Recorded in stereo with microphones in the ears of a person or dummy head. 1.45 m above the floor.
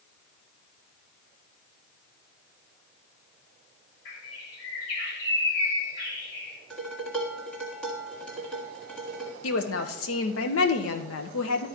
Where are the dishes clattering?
5° left (ahead or behind), 1.6 m.